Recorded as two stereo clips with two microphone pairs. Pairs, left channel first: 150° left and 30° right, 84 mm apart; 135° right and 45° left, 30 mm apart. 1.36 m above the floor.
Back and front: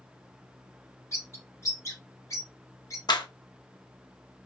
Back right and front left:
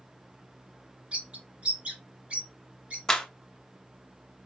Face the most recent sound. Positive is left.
turn(degrees=160)